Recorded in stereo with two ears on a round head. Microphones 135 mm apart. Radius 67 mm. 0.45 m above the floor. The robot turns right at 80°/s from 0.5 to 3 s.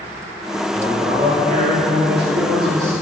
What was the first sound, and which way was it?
A man speaking, 170° left.